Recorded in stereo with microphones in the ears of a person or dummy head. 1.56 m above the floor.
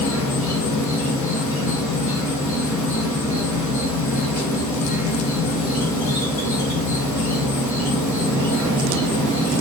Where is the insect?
10° left (ahead or behind), 1.7 m.